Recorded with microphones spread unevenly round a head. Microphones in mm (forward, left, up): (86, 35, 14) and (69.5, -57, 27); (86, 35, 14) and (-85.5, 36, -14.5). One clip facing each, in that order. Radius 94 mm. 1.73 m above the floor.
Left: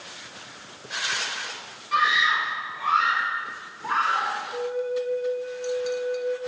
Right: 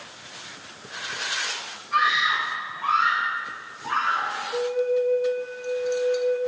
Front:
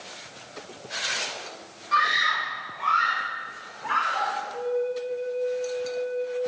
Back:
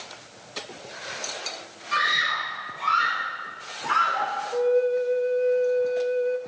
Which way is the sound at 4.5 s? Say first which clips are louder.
Right 7 dB, back 7 dB; 150° right.